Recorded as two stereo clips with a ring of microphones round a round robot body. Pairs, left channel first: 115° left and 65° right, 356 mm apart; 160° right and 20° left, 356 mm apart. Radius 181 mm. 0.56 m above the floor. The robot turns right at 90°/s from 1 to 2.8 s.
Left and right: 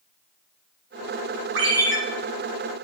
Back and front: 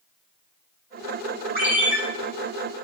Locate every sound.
1.6 s a ringtone: 90° right, 4 m; by 2.0 s 55° right, 4 m